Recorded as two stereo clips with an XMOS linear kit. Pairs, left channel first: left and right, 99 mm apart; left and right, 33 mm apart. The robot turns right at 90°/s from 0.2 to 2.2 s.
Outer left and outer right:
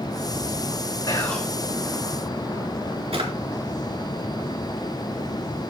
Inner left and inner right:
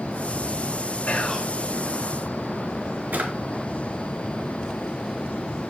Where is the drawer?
70° right (ahead or behind), 3 m.